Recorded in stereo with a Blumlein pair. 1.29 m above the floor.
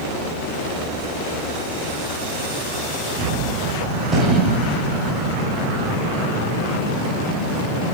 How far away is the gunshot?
About 1.8 m.